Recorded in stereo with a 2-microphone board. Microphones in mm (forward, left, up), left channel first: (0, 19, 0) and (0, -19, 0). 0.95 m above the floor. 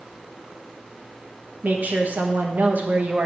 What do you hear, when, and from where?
1.6 s a woman speaking: 50° right (ahead or behind), 0.9 m